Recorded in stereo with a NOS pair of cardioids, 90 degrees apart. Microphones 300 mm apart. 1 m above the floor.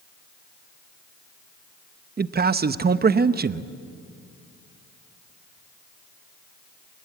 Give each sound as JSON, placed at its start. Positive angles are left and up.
{"t": 2.2, "sound": "a man speaking", "azimuth_deg": -30, "distance_m": 1.0}